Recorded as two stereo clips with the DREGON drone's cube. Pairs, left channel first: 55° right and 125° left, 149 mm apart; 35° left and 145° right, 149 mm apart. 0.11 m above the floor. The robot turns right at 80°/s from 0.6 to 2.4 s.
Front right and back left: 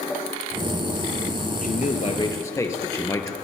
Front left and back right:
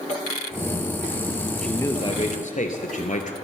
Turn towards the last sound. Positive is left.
turn(degrees=10)